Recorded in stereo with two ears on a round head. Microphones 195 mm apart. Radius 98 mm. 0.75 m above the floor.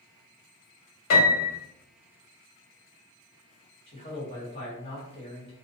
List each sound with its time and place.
1.1 s a piano: 70° left (ahead or behind), 1.1 m
3.9 s a man speaking: 30° left (ahead or behind), 1.1 m